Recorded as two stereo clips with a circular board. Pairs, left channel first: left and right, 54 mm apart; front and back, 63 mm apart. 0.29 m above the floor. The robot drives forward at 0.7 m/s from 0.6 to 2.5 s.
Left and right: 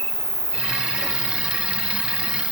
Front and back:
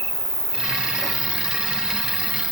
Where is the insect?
50° left, 2 m; by 2.5 s 95° left, 1.9 m.